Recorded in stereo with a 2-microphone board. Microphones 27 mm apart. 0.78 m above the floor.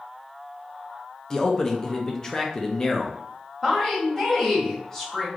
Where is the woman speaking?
20° left (ahead or behind), 2 m.